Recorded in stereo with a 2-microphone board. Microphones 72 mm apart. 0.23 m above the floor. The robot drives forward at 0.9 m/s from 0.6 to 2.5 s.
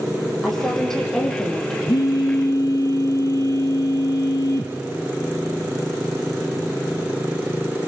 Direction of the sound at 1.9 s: 55° left (ahead or behind).